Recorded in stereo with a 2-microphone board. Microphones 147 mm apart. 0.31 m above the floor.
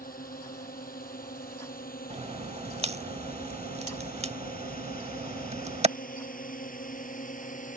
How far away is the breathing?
No breathing in this recording.